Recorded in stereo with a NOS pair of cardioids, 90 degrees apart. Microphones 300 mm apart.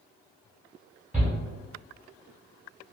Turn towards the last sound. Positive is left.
turn(degrees=-5)